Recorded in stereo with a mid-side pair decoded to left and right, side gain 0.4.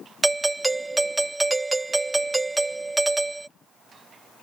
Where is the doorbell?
25° right.